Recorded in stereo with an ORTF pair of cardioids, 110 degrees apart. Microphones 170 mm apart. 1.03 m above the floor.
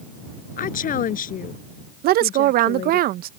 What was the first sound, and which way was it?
A woman speaking, 55° left.